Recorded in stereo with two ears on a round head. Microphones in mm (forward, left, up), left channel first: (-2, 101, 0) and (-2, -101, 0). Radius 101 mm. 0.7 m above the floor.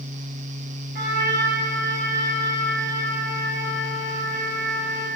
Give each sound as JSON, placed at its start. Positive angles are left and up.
{"t": 0.9, "sound": "a trumpet", "side_deg": -45, "distance_m": 5.0}